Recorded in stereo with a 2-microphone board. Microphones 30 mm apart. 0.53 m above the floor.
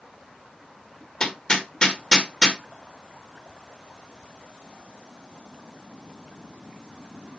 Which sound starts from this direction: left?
Hammering, at 1.2 s.